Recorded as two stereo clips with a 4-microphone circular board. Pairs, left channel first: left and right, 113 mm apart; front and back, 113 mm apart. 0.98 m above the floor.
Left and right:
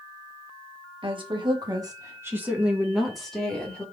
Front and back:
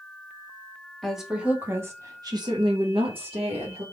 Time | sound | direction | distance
1.0 | a woman speaking | 90° right | 1.1 m